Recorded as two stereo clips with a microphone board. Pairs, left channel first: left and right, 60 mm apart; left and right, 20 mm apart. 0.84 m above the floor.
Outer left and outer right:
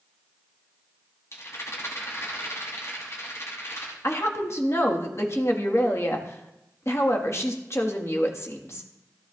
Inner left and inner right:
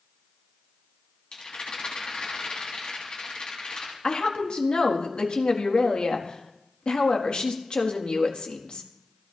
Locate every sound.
1.3 s a rattle: 50° left (ahead or behind), 4 m
4.0 s a woman speaking: 45° left (ahead or behind), 1.5 m